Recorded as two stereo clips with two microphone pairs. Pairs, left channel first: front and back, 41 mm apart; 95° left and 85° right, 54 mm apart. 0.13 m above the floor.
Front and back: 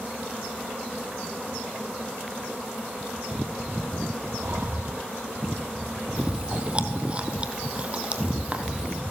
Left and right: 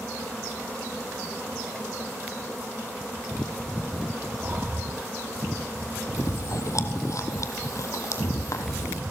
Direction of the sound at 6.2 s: 120° left.